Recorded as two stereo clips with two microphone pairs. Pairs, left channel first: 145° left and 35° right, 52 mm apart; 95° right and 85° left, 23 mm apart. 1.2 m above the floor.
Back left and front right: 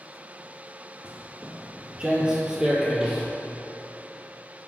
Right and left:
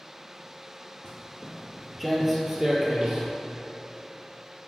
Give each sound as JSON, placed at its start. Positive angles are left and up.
{"t": 1.0, "sound": "footsteps", "azimuth_deg": -90, "distance_m": 1.3}